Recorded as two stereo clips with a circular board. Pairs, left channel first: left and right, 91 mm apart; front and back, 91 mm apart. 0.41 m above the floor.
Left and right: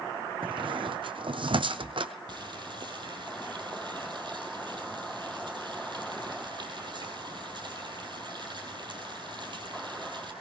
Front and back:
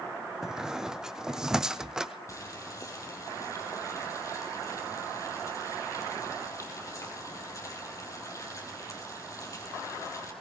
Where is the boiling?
55° right, 4 m.